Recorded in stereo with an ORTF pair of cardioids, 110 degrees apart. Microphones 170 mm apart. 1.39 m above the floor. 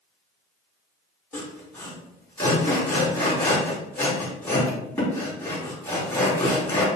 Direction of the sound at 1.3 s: 10° left.